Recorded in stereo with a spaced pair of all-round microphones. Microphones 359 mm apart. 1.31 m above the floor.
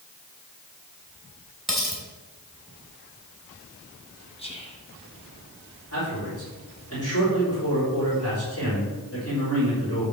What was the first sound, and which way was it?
Cutlery clinking, centre (ahead or behind).